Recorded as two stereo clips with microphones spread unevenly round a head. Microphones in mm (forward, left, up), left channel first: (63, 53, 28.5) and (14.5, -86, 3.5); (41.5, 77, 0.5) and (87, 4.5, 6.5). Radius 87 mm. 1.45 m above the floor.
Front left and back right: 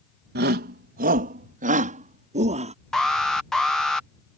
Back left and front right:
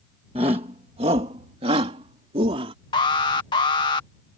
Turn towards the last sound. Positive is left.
turn(degrees=160)